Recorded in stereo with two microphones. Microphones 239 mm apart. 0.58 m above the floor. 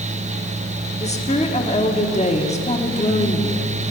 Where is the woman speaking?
25° left (ahead or behind), 1.3 m.